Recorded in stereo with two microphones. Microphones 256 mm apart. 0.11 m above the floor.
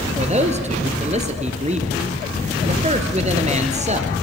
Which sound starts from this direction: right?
A man speaking, at 0.2 s.